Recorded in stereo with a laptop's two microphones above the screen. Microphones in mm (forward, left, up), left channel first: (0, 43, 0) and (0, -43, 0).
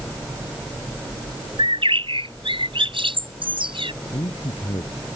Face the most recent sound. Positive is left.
turn(degrees=85)